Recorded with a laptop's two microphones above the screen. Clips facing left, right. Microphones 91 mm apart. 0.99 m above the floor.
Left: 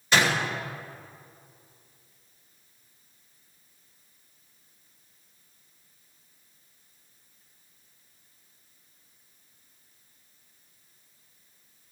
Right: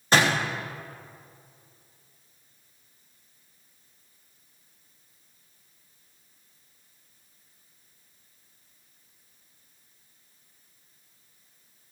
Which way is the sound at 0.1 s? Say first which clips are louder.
Right 2 dB; 40° right (ahead or behind).